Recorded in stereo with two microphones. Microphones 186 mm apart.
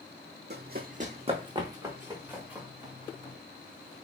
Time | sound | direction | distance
0.5 | running footsteps | 65° right (ahead or behind) | 0.8 m